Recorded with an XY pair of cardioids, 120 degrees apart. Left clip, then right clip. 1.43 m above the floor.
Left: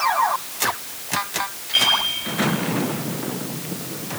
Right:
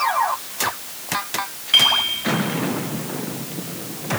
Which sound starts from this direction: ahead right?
A clink, at 1.7 s.